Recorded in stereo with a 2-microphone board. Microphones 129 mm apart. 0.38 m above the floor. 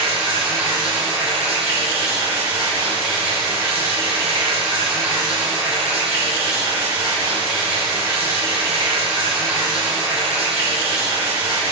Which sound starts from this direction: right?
Running water, at 0.0 s.